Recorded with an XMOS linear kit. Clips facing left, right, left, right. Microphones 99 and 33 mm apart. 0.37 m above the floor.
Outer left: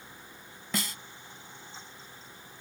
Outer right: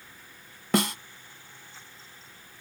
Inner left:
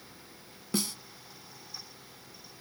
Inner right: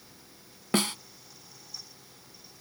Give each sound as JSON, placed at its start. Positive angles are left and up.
{"t": 0.7, "sound": "a snare drum", "side_deg": -60}